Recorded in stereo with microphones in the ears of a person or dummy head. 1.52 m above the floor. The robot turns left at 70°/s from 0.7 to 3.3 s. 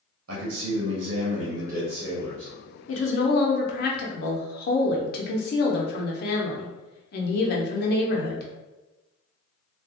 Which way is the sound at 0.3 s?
90° right.